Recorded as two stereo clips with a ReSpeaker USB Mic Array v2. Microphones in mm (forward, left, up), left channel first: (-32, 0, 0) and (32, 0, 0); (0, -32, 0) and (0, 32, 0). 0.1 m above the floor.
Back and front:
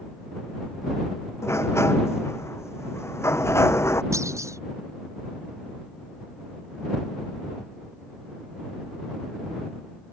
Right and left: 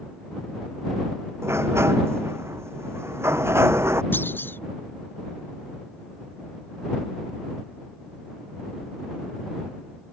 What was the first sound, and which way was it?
A sliding door, 135° left.